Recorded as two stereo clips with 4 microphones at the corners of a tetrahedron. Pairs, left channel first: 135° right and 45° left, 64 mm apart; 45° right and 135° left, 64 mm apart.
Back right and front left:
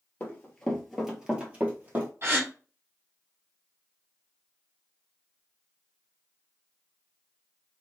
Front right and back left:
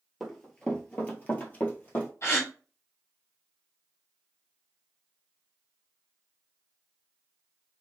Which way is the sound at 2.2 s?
Straight ahead.